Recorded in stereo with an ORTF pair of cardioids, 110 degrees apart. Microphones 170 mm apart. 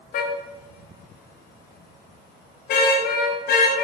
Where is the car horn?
65° left, 3 m; by 3.8 s 70° left, 7 m.